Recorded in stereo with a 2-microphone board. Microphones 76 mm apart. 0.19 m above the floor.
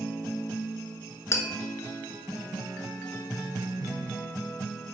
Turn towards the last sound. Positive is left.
turn(degrees=40)  # may be behind; listen again after turning